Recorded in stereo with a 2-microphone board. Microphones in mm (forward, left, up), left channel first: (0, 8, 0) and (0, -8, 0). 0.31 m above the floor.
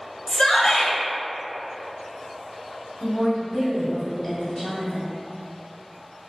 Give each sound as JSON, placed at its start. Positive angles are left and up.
{"t": 0.3, "sound": "a shout", "side_deg": 35, "distance_m": 1.3}
{"t": 3.0, "sound": "a woman speaking", "side_deg": 40, "distance_m": 1.8}